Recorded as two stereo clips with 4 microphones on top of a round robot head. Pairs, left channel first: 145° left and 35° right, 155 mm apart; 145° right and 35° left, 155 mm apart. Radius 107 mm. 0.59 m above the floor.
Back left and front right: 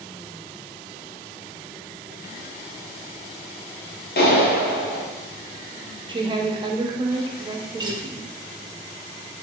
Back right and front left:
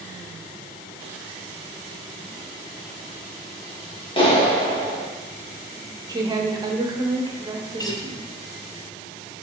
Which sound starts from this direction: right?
A guitar, at 7.8 s.